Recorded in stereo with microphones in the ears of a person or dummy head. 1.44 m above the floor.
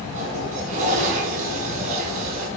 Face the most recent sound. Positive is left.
turn(degrees=-40)  # may be behind; listen again after turning